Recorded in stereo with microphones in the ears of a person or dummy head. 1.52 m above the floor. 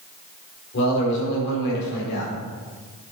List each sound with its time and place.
0.7 s a man speaking: 65° left (ahead or behind), 5 m